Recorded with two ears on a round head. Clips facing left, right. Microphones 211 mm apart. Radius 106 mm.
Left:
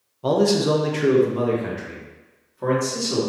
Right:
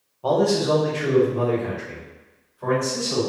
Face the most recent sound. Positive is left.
turn(degrees=65)  # may be behind; listen again after turning